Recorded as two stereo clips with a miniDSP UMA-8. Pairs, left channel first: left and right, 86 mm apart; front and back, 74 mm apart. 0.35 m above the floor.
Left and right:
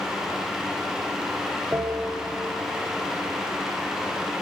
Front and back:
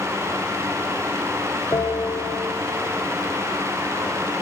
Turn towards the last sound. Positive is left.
turn(degrees=-35)